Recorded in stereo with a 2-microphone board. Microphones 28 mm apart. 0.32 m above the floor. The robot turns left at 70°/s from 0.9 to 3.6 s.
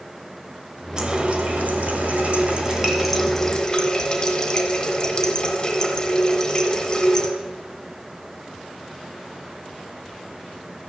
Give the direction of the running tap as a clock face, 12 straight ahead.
1 o'clock.